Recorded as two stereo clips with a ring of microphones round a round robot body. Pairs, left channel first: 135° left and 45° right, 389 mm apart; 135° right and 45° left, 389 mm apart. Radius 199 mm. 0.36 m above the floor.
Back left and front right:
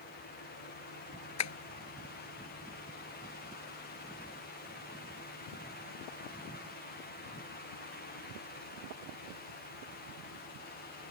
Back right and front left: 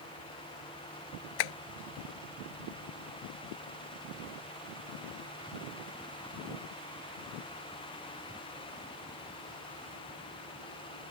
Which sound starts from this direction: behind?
Tapping, at 1.4 s.